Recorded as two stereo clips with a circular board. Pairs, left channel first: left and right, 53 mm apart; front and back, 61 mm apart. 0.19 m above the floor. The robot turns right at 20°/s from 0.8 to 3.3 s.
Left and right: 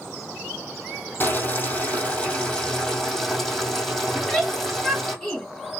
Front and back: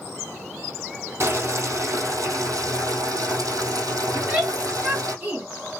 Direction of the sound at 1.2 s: 135° left.